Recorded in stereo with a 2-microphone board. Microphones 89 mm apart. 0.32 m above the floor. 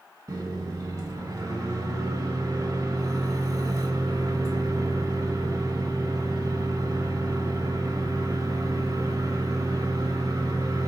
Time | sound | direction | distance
0.3 | a microwave | 40° right (ahead or behind) | 1.4 m